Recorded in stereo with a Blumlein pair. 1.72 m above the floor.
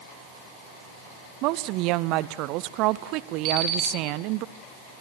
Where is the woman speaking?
40° right, 0.8 m.